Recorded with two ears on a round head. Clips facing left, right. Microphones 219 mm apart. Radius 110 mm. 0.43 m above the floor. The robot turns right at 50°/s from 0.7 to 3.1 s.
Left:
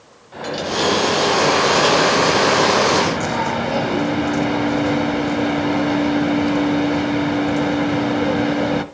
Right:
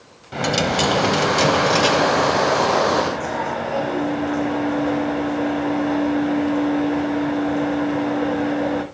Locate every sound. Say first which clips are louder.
0.3 s a dropped coin: right 2 dB; 65° right, 1.0 m; by 8.8 s 55° left, 1.0 m